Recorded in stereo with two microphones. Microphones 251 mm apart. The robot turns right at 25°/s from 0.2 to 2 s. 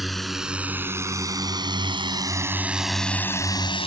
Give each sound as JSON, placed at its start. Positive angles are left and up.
{"t": 0.0, "sound": "a drone", "side_deg": 0}